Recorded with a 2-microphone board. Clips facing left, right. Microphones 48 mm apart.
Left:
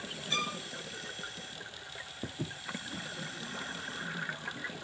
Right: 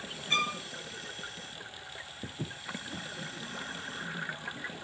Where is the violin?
40° right (ahead or behind), 0.6 m.